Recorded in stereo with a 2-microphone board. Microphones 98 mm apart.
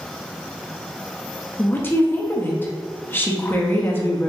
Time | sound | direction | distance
1.6 | a woman speaking | 25° left (ahead or behind) | 0.6 m